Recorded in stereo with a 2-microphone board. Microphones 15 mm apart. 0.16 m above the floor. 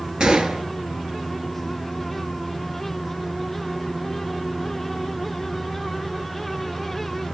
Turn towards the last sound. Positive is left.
turn(degrees=-65)  # may be behind; listen again after turning